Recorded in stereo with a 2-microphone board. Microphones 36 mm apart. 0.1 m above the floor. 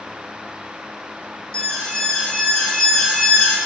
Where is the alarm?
25° left (ahead or behind), 3.5 m.